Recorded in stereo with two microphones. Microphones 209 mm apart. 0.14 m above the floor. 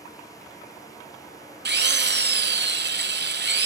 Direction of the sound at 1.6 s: 55° right (ahead or behind).